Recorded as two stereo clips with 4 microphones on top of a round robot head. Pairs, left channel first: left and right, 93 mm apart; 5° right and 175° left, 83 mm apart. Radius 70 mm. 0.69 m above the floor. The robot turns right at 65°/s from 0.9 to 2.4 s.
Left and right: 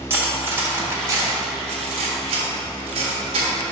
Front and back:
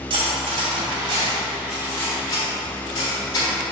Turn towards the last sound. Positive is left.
turn(degrees=-60)